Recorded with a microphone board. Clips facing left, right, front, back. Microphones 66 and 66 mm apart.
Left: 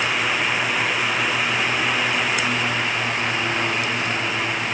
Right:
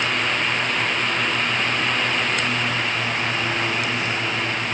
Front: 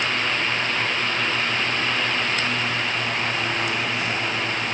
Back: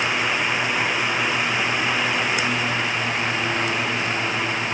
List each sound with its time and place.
Only background noise.